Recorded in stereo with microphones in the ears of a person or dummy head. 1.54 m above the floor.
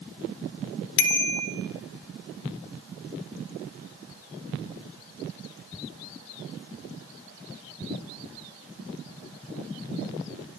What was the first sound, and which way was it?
A bicycle bell, 65° left (ahead or behind).